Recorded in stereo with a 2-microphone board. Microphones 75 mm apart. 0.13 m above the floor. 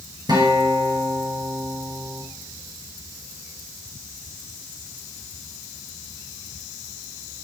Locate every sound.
0.3 s a guitar: 60° right (ahead or behind), 1.8 m